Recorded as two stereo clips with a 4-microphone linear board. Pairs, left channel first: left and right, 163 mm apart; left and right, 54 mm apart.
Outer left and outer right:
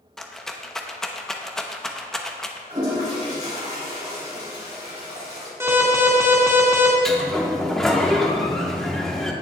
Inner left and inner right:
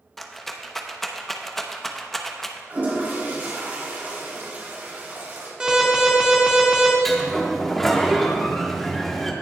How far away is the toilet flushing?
About 3.5 m.